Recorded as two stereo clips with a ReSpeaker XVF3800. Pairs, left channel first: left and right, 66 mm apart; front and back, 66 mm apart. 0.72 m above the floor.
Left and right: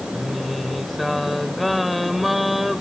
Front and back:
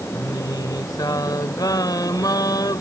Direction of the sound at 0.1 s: Straight ahead.